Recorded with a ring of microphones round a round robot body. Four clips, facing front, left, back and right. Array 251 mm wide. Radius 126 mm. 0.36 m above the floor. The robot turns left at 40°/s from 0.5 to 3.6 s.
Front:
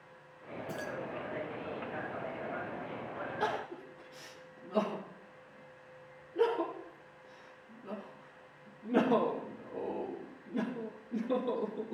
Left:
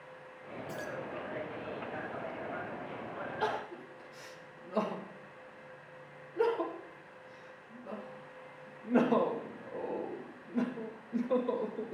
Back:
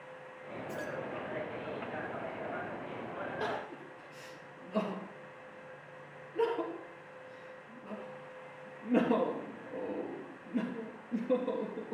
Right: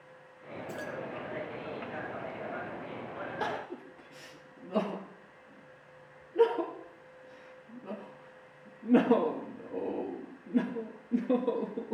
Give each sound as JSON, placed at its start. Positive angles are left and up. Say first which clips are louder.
{"t": 0.7, "sound": "keys jangling", "louder": "right 1 dB, even", "azimuth_deg": -15, "distance_m": 2.5}
{"t": 3.4, "sound": "crying", "louder": "left 2 dB, front 5 dB", "azimuth_deg": -95, "distance_m": 5.0}